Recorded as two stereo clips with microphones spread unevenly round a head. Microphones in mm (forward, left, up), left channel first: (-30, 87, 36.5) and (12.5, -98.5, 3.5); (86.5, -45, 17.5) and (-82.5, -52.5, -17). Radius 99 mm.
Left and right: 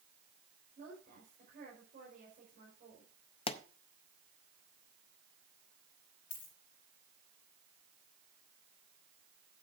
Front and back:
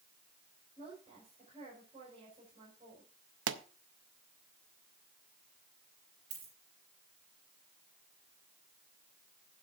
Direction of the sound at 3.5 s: 160° left.